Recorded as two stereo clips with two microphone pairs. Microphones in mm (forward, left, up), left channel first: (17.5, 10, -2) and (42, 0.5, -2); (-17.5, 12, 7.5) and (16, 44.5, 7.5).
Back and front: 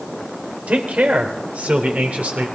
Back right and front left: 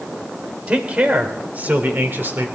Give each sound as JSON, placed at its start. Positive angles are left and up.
{"t": 0.7, "sound": "a man speaking", "azimuth_deg": -15, "distance_m": 3.0}